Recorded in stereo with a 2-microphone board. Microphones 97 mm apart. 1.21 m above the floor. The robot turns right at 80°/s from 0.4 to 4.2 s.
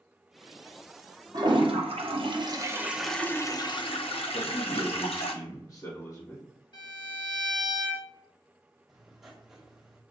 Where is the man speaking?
35° left (ahead or behind), 1.4 m.